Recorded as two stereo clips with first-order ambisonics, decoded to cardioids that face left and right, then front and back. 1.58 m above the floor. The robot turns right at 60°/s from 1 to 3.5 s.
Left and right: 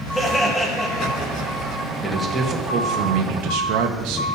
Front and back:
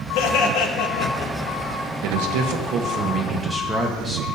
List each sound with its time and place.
0.1 s laughter: 10° left, 2.0 m; by 1.5 s 40° left, 2.0 m
2.0 s a man speaking: 175° left, 1.9 m; by 4.3 s 95° right, 1.9 m